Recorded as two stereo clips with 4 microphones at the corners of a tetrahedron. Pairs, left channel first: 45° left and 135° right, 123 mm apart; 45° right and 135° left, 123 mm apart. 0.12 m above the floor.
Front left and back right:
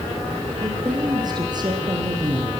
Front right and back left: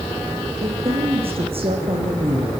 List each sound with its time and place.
0.6 s a woman speaking: 170° left, 4.5 m; by 2.5 s 175° left, 3.5 m